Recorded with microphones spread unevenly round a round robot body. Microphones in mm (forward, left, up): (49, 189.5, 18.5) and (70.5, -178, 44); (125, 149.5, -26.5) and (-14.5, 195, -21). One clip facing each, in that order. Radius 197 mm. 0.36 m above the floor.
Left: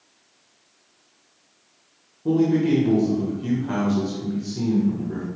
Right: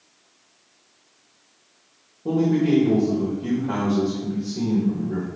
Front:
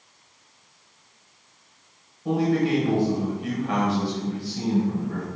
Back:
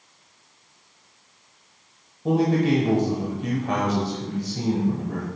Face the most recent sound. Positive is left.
turn(degrees=160)